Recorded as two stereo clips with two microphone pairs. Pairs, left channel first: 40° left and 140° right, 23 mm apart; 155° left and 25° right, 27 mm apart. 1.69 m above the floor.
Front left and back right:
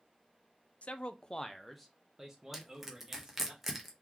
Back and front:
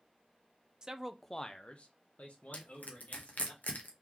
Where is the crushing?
140° left, 1.1 m.